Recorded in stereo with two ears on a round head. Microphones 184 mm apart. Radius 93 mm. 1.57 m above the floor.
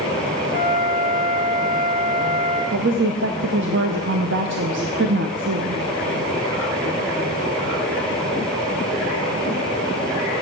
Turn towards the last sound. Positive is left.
turn(degrees=-55)  # may be behind; listen again after turning